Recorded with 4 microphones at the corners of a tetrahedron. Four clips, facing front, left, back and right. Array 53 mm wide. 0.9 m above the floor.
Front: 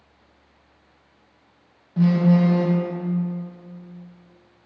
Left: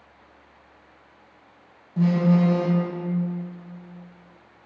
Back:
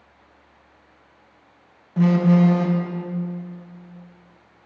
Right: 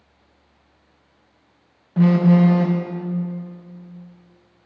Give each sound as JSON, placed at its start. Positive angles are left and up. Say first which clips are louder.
{"t": 2.0, "sound": "a phone buzzing", "louder": "right 5 dB, back 1 dB", "azimuth_deg": -110, "distance_m": 0.6}